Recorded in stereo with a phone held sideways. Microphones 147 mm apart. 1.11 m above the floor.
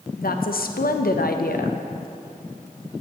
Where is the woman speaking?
75° left (ahead or behind), 0.6 m.